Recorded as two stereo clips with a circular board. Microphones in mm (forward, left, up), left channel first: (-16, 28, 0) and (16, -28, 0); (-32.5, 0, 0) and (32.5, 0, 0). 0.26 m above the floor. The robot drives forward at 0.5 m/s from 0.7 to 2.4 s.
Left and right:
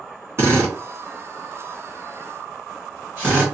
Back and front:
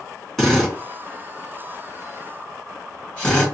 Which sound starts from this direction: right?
A drill, at 0.4 s.